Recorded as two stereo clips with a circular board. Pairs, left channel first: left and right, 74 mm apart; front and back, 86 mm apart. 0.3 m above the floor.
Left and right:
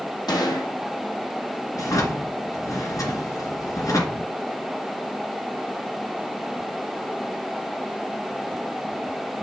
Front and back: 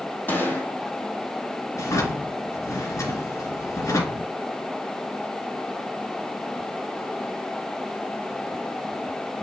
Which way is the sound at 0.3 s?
65° left.